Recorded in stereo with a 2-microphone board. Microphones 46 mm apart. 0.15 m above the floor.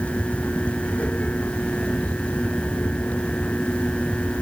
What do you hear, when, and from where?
Only background noise.